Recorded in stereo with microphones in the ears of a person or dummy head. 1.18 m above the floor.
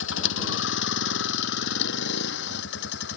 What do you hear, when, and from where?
0.0 s a vehicle: 80° left; by 3.2 s 70° left (ahead or behind)